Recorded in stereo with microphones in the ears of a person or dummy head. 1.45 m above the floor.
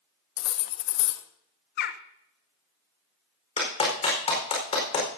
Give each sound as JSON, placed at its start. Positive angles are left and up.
{"t": 0.4, "sound": "cutlery clinking", "side_deg": 65, "distance_m": 1.3}
{"t": 1.8, "sound": "a bird", "side_deg": 55, "distance_m": 0.8}
{"t": 3.6, "sound": "a clap", "side_deg": 35, "distance_m": 4.5}